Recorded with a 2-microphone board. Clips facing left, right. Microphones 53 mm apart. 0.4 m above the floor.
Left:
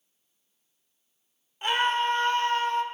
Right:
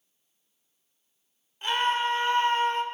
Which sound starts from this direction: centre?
A scream, at 1.6 s.